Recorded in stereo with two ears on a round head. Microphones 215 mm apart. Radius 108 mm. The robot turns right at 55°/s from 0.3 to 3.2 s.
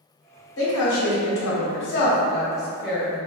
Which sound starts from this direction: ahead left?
A woman speaking, at 0.6 s.